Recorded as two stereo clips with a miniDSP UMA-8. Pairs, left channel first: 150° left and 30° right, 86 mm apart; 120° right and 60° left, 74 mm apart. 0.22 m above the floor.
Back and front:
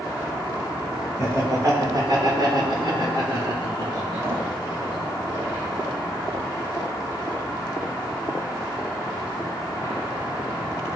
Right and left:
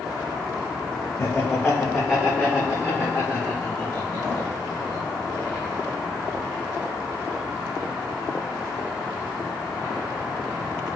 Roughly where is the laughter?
Ahead right.